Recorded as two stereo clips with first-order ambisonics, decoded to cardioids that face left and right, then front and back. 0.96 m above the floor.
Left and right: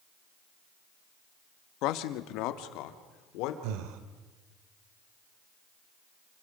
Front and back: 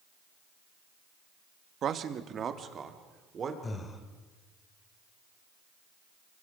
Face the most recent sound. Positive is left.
turn(degrees=-75)